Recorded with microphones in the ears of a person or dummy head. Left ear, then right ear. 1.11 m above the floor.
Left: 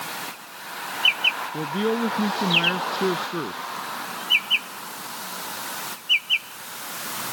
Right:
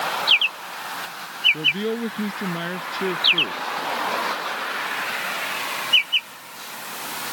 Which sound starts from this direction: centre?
A man speaking, at 1.5 s.